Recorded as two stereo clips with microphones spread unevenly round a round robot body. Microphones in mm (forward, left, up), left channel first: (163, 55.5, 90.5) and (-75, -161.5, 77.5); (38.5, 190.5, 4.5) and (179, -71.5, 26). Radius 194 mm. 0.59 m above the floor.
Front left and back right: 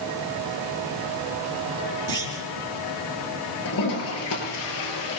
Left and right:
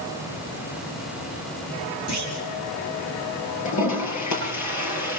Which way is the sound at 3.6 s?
95° left.